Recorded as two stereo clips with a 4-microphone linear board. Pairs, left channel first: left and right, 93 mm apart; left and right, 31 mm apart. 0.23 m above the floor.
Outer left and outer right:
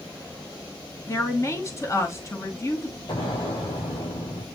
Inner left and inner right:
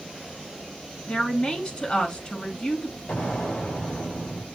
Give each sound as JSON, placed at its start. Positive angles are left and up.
{"t": 1.1, "sound": "a woman speaking", "side_deg": 30, "distance_m": 2.5}
{"t": 3.1, "sound": "an explosion", "side_deg": 60, "distance_m": 6.0}